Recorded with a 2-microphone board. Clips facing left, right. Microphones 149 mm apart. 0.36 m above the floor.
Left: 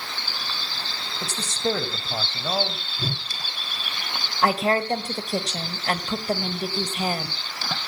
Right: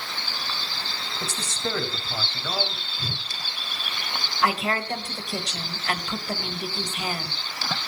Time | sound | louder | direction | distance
1.2 | a man speaking | left 5 dB | 30° left (ahead or behind) | 1.7 m
3.0 | a whoosh | left 6 dB | 70° left (ahead or behind) | 6 m
4.4 | a woman speaking | left 4 dB | 40° left (ahead or behind) | 1.5 m